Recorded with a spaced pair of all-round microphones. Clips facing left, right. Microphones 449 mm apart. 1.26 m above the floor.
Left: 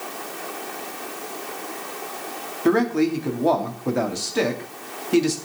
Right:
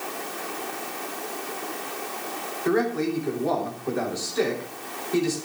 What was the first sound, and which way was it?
A man speaking, 85° left.